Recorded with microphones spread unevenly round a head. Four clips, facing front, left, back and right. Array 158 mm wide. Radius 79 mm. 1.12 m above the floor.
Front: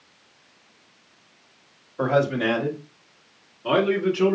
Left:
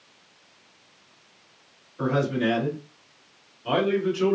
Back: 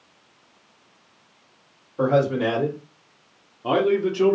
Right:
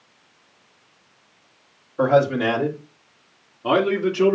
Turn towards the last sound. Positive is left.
turn(degrees=-120)